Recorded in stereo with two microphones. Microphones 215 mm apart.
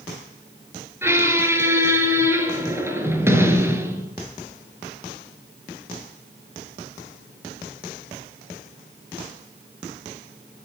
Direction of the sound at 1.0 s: 10° right (ahead or behind).